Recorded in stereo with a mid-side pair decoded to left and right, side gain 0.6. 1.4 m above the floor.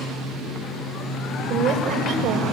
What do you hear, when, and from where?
1.5 s a woman speaking: 55° right, 6.5 m